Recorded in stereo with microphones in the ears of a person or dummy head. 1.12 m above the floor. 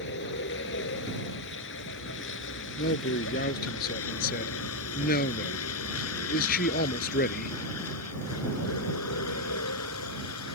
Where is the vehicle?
55° left (ahead or behind); by 10.6 s 85° left.